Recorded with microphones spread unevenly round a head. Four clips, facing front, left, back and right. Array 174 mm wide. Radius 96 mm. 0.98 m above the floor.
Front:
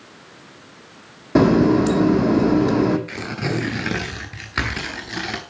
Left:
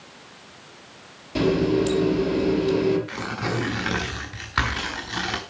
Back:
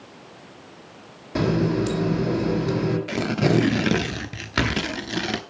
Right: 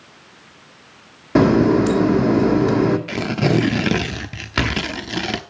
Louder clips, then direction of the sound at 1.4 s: Right 7 dB, front 8 dB; 50° right.